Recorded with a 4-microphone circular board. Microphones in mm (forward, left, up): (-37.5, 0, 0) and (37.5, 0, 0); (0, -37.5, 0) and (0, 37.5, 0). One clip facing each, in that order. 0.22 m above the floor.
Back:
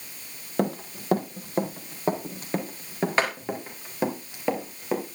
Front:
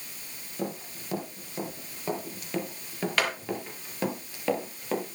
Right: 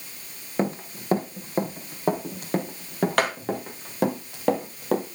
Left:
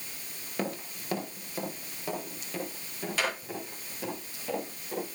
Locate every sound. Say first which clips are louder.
0.6 s running footsteps: back 8 dB, right 7 dB; 150° right, 4.5 m; by 5.0 s 105° right, 7.5 m